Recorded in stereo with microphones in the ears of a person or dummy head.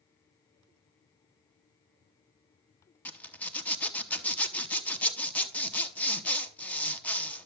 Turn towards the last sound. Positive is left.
turn(degrees=10)  # may be behind; listen again after turning